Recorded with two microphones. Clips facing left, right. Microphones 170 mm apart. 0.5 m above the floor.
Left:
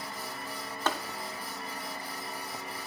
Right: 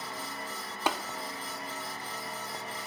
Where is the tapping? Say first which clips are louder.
Right 1 dB; 10° right (ahead or behind), 0.5 m.